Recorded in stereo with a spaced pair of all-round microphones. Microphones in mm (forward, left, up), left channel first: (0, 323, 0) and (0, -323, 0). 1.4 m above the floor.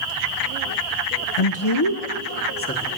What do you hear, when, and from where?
1.4 s a man speaking: 55° left (ahead or behind), 0.6 m; by 2.9 s 15° left (ahead or behind), 1.2 m